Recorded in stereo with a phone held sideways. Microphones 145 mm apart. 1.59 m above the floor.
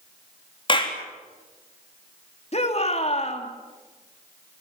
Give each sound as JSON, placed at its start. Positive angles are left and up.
{"t": 0.7, "sound": "a clap", "side_deg": 35, "distance_m": 3.0}
{"t": 2.5, "sound": "a shout", "side_deg": 45, "distance_m": 2.5}